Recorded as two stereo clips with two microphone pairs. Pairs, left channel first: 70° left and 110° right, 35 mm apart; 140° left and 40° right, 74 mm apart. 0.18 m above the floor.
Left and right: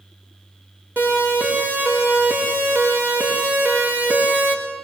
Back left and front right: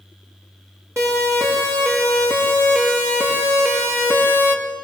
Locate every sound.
1.0 s a siren: 90° right, 6.5 m; by 4.6 s 95° right, 4 m